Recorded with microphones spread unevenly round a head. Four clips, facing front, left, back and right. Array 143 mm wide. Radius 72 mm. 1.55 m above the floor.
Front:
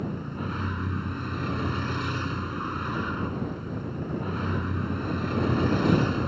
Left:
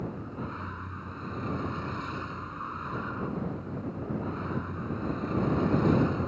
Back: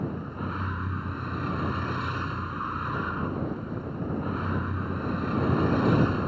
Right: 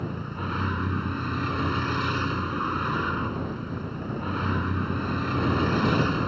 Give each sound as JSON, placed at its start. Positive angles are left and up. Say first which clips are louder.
{"t": 0.0, "sound": "a vehicle", "louder": "right 4 dB, even", "azimuth_deg": -60}